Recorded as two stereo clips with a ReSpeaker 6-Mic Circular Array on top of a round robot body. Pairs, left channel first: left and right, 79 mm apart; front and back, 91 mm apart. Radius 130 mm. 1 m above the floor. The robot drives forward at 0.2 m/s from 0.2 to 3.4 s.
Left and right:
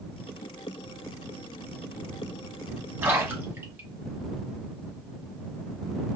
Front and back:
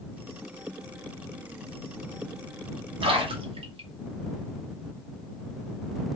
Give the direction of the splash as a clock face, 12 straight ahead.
5 o'clock.